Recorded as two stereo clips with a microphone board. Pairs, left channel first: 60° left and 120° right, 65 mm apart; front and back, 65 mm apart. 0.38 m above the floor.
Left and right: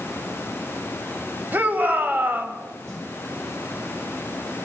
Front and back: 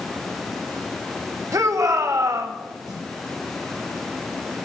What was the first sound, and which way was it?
A shout, 175° right.